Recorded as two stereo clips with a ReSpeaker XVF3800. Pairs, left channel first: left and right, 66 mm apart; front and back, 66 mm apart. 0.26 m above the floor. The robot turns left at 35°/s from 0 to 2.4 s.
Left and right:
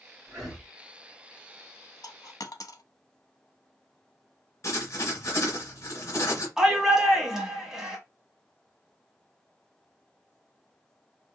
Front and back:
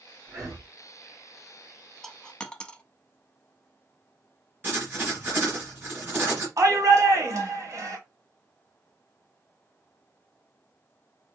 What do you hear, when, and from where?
0.3 s breathing: 160° right, 2.5 m; by 0.7 s 175° right, 2.5 m
2.0 s a dropped coin: 85° left, 0.5 m; by 2.8 s 75° left, 0.5 m
4.6 s writing: 130° left, 2.5 m
6.6 s a shout: 170° right, 1.4 m